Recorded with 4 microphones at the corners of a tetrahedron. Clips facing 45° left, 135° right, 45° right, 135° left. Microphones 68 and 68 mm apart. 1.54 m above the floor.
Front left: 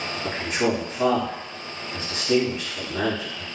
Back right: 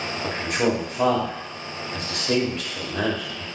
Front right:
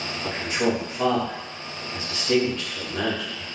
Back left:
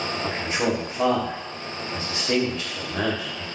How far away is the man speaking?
About 1.2 m.